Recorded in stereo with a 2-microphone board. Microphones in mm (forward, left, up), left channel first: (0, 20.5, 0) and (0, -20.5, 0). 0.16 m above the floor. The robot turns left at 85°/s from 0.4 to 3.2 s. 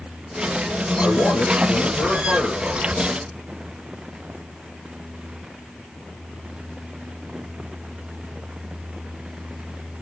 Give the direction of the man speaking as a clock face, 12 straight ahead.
8 o'clock.